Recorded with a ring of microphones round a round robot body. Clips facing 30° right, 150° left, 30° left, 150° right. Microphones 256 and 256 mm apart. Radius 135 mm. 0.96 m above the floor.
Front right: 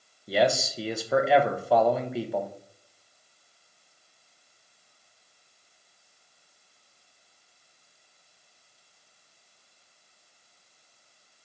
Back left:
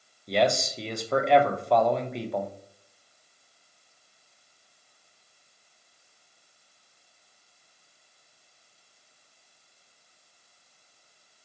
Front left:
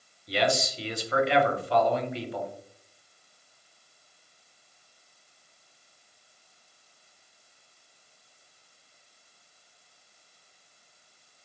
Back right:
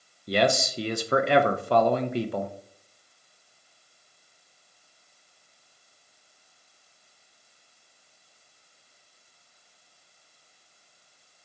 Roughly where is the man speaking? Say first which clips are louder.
Even, back right 3 dB; behind right.